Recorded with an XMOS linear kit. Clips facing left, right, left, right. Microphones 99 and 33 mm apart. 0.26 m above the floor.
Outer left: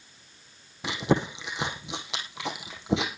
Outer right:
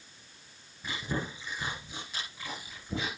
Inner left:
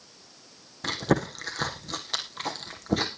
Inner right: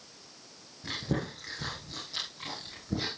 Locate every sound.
0.8 s chewing: 85° left, 3 m